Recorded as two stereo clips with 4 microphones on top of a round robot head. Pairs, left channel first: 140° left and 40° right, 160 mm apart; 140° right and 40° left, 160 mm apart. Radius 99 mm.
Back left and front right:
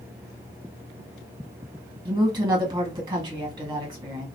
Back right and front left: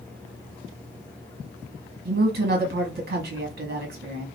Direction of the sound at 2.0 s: 25° left.